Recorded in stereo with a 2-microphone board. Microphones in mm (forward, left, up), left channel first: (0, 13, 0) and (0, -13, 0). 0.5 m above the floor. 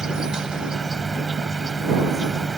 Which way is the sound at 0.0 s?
20° right (ahead or behind).